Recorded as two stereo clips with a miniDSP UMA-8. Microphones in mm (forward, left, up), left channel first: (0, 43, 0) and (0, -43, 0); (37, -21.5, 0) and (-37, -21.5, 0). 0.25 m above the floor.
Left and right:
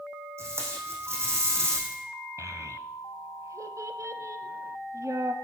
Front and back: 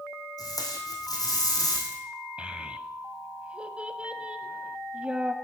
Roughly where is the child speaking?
Behind right.